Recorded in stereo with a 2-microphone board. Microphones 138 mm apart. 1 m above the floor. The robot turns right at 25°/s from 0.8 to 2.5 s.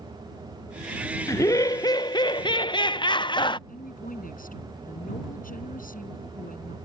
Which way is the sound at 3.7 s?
85° left.